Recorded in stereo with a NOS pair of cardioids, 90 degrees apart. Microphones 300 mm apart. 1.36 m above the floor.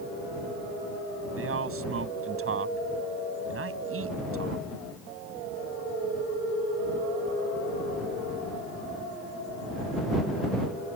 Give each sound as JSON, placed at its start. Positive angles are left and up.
{"t": 1.4, "sound": "a man speaking", "azimuth_deg": -45}